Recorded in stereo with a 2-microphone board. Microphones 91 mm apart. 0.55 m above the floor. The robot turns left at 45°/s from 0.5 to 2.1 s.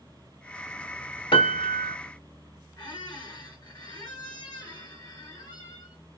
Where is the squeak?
45° left (ahead or behind), 1.9 m.